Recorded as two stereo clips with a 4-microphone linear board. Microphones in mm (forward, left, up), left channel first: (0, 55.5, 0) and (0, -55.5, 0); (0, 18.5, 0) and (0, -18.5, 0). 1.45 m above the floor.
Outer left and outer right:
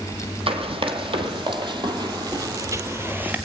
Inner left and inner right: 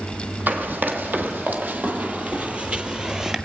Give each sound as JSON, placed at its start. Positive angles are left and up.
{"t": 0.5, "sound": "running footsteps", "side_deg": -60, "distance_m": 3.5}